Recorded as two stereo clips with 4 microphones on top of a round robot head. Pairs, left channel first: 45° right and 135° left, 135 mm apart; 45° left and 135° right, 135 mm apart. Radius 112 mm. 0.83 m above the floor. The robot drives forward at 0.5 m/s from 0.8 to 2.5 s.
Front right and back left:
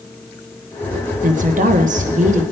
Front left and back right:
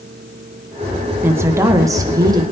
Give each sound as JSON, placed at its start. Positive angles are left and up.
{"t": 1.2, "sound": "a woman speaking", "azimuth_deg": 150, "distance_m": 1.1}